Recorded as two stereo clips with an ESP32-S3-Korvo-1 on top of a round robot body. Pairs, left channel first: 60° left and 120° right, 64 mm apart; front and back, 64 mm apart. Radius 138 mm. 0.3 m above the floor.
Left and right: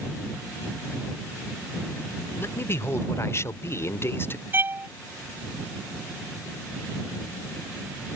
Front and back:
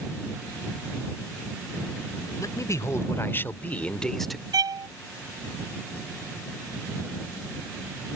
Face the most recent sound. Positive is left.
turn(degrees=180)